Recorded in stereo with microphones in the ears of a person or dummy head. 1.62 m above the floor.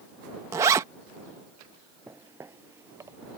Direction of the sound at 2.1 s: 10° right (ahead or behind).